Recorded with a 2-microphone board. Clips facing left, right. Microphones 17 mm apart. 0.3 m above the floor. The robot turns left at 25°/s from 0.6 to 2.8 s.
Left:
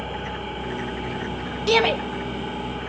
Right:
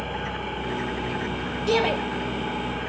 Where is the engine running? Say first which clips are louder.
Even; 25° right, 9.5 m; by 2.9 s 80° right, 9.5 m.